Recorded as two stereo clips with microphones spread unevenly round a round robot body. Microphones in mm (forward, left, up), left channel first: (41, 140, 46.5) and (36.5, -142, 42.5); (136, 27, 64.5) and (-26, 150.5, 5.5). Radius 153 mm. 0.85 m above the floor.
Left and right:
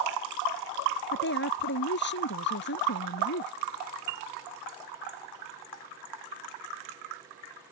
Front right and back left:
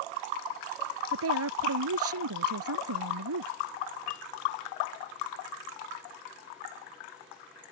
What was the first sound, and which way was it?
A woman speaking, 145° left.